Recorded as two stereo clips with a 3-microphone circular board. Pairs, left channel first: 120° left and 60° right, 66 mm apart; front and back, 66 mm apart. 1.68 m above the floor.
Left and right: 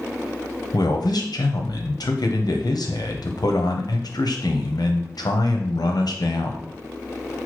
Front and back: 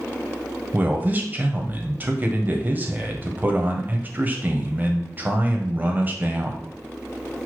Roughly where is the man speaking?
Behind left.